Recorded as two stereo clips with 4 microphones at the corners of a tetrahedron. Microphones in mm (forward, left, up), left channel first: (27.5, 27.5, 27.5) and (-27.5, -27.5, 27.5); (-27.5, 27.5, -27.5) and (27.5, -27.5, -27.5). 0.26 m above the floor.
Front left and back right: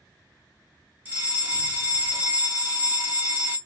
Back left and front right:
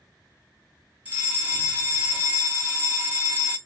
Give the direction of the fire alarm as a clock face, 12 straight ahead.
3 o'clock.